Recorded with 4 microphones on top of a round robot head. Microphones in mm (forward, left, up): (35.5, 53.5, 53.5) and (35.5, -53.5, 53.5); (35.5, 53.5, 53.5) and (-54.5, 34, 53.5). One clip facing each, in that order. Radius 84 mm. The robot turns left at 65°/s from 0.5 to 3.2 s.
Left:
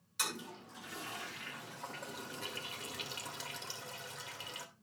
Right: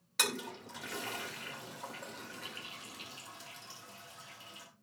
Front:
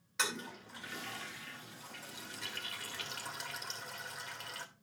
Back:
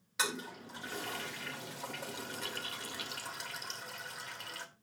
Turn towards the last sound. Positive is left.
turn(degrees=100)